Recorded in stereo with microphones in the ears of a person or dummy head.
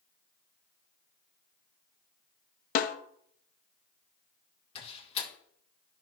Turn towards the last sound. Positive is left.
turn(degrees=30)  # may be behind; listen again after turning